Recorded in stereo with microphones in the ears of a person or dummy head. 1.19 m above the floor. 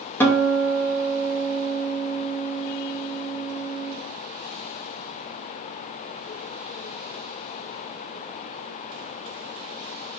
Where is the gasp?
I don't hear a gasp.